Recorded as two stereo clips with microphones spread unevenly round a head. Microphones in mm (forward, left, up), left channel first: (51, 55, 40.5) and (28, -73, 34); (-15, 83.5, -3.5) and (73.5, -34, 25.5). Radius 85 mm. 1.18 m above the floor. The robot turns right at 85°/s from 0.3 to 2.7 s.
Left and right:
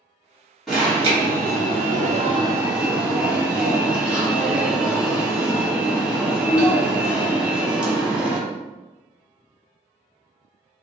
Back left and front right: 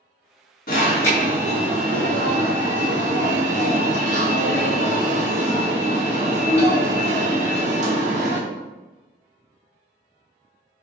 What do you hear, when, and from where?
0.7 s an alarm: 170° left, 1.1 m; by 8.4 s 20° right, 1.1 m